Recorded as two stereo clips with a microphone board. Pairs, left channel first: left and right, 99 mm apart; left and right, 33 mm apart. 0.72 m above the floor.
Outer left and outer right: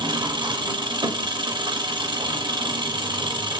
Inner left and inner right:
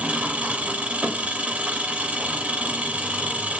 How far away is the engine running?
About 0.7 m.